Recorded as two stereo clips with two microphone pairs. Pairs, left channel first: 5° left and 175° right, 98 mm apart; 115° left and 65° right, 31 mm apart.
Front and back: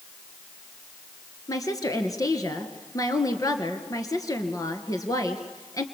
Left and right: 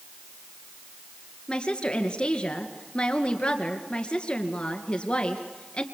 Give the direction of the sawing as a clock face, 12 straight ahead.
I don't hear sawing.